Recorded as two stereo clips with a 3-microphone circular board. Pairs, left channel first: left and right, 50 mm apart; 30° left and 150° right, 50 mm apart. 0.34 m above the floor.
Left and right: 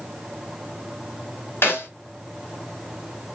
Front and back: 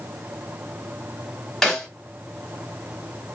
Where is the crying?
I don't hear crying.